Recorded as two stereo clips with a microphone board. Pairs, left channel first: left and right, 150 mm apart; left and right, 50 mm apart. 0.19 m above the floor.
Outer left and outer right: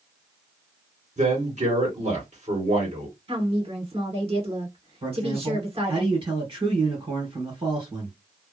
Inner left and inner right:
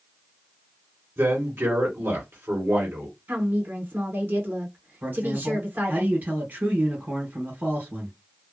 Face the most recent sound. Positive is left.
turn(degrees=-40)  # may be behind; listen again after turning